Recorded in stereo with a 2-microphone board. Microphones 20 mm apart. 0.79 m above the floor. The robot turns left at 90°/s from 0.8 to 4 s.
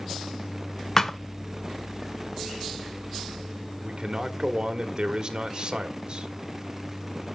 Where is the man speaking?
50° right (ahead or behind), 1.6 m; by 6.3 s 40° right (ahead or behind), 1.6 m.